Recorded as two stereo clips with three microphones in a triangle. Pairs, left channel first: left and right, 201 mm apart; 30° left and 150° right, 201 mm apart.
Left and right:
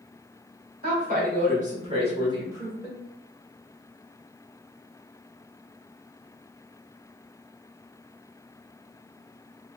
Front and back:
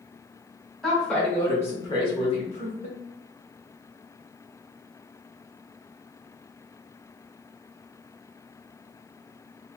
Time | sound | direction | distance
0.8 | a woman speaking | 60° right | 1.8 m